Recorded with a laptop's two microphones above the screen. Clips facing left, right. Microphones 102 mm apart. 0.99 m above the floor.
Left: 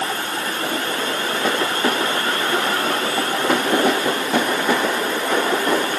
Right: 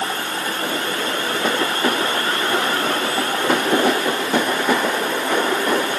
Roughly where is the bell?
No bell in this recording.